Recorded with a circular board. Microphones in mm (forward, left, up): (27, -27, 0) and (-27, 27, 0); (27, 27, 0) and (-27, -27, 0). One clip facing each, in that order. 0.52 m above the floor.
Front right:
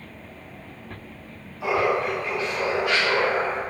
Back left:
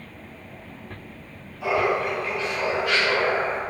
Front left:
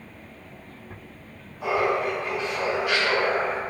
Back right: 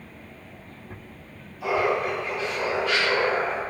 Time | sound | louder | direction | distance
1.6 | laughter | even, even | 25° left | 1.5 m